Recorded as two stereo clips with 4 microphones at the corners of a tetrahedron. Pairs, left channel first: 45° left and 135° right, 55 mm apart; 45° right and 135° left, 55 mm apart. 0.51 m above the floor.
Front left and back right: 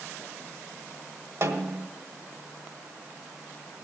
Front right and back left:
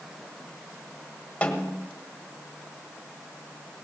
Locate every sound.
1.4 s a snare drum: 110° right, 1.5 m